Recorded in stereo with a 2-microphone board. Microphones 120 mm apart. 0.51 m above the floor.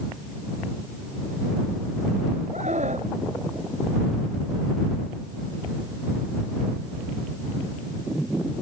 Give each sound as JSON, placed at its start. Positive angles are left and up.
{"t": 2.5, "sound": "a scream", "side_deg": -70}